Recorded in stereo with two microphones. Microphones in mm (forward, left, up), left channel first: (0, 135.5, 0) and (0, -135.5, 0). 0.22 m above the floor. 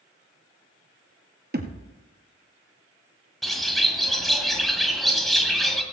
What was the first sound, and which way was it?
A thud, 40° right (ahead or behind).